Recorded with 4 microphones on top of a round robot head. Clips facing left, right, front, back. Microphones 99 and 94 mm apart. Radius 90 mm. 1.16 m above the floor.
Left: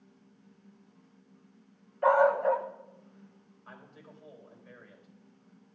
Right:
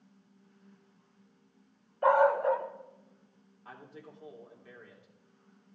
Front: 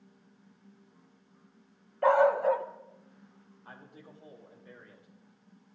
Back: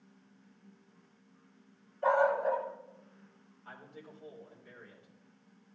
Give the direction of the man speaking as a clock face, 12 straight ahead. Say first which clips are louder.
Right 3 dB, back 1 dB; 3 o'clock.